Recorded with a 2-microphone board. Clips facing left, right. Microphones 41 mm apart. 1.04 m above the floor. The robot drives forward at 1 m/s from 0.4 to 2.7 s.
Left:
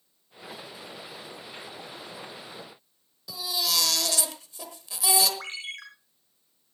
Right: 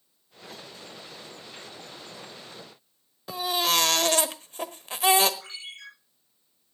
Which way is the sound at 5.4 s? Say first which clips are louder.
Left 5 dB; 60° left (ahead or behind).